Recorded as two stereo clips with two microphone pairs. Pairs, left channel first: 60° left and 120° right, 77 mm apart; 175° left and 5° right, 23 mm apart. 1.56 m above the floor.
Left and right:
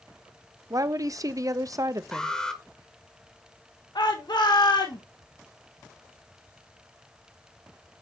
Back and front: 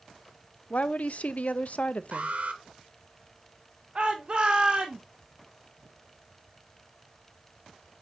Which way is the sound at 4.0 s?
40° left.